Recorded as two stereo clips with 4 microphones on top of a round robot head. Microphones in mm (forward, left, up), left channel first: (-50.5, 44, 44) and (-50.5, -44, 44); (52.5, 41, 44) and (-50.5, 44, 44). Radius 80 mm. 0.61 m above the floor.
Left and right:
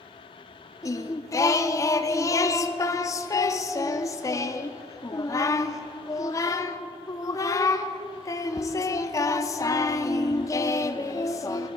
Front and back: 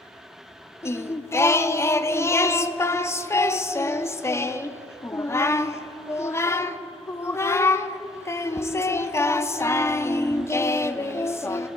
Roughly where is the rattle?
No rattle in this recording.